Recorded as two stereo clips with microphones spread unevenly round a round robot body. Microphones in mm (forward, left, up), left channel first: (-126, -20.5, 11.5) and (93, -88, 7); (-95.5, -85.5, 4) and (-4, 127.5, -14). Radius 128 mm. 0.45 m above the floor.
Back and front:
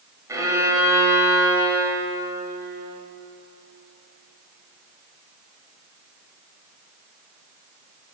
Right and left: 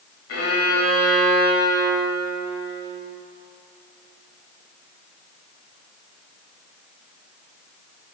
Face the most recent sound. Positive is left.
turn(degrees=-90)